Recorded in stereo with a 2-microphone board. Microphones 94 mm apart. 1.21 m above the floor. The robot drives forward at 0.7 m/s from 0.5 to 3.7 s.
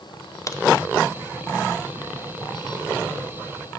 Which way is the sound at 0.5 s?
35° left (ahead or behind).